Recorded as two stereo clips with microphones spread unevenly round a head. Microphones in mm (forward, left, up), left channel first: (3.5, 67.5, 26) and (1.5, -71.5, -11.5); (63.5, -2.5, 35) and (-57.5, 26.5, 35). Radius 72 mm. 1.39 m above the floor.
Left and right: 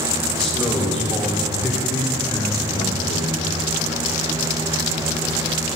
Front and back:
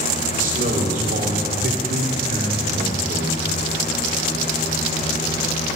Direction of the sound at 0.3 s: Straight behind.